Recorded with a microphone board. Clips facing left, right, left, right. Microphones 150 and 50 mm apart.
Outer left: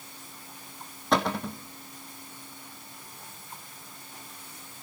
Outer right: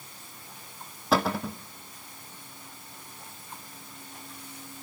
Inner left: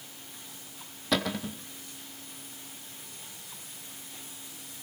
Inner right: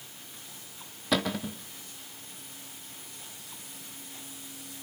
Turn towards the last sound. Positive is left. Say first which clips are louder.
# outer right 1 dB, inner right 1 dB
turn(degrees=-5)  # may be behind; listen again after turning